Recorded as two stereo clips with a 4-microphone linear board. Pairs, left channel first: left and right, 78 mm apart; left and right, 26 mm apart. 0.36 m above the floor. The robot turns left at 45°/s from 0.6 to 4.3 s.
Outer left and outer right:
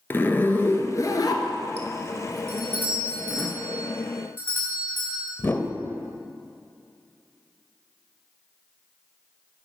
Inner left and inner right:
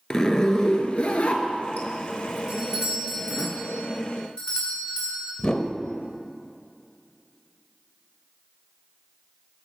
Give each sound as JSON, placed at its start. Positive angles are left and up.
{"t": 0.1, "sound": "a zipper", "side_deg": 30, "distance_m": 0.8}
{"t": 2.5, "sound": "a doorbell", "azimuth_deg": -135, "distance_m": 2.0}
{"t": 5.4, "sound": "a whoosh", "side_deg": 30, "distance_m": 0.6}